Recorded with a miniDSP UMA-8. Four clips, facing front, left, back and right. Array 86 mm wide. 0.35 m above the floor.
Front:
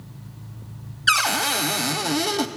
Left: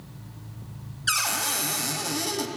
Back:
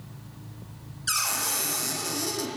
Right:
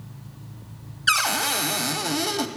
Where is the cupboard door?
30° right, 0.5 m.